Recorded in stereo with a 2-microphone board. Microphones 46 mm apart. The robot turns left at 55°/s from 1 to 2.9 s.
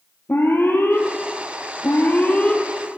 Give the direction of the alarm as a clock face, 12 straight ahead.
8 o'clock.